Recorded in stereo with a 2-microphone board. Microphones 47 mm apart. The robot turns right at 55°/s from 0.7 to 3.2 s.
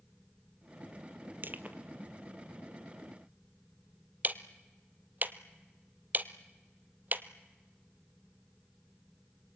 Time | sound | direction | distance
1.4 | crushing | 45° right (ahead or behind) | 1.0 m
4.2 | ticking | 40° right (ahead or behind) | 0.8 m